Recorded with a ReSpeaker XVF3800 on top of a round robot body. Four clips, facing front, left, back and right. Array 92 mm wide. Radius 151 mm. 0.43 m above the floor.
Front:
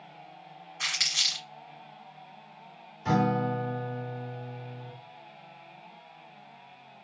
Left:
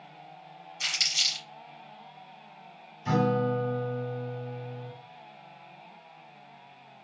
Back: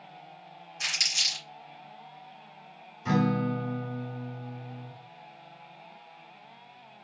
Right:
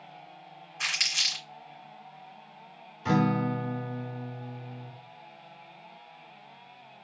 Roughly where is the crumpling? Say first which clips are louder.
Right 2 dB, even; ahead right.